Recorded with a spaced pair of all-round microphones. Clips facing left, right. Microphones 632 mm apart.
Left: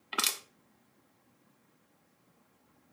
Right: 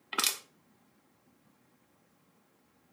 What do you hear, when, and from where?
0.1 s crushing: centre (ahead or behind), 0.7 m